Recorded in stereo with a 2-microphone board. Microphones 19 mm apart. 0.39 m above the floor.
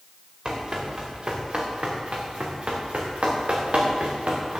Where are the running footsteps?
40° right (ahead or behind), 3.5 m; by 4.6 s 75° right (ahead or behind), 3.5 m.